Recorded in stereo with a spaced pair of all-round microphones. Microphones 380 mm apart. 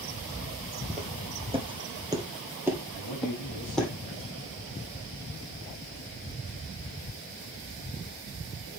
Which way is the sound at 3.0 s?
80° left.